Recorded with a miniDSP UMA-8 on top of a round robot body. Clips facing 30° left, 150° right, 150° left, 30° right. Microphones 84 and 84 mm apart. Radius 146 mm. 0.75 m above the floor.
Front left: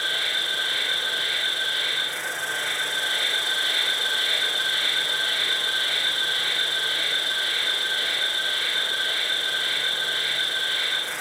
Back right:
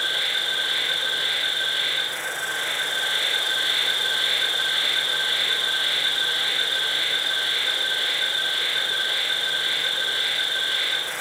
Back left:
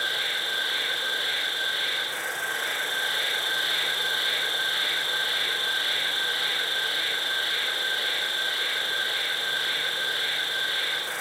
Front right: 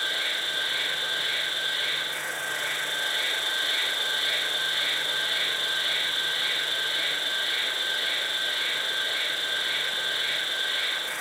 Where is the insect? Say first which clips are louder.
Back right 1 dB, back left 1 dB; 175° right, 1.7 m.